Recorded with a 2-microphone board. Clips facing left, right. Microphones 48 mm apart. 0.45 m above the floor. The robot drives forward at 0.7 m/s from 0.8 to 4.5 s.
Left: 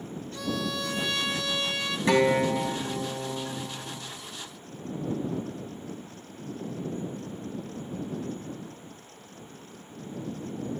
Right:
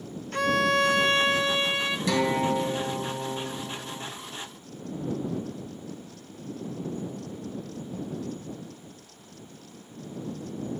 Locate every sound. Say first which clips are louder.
0.3 s a violin: right 9 dB; 60° right (ahead or behind), 0.5 m; by 2.0 s 25° right (ahead or behind), 1.1 m
2.1 s a guitar: left 4 dB; 30° left (ahead or behind), 2.5 m; by 4.0 s 20° left (ahead or behind), 4 m